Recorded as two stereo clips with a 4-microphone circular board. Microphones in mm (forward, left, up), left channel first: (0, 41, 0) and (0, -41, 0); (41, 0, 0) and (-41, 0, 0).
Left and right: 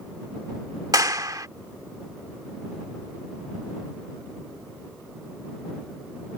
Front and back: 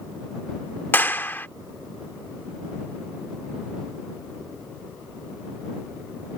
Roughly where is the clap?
Ahead right.